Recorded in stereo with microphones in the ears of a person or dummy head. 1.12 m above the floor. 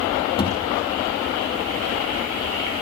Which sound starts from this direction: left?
A thud, at 0.4 s.